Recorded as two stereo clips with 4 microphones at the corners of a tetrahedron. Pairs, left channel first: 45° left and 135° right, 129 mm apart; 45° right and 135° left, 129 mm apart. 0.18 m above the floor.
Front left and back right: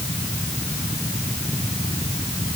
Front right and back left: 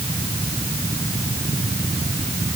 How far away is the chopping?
I don't hear chopping.